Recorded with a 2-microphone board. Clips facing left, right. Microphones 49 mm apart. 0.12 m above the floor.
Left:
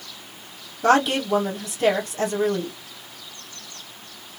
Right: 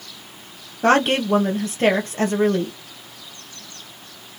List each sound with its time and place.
0.8 s a woman speaking: 45° right (ahead or behind), 2.5 m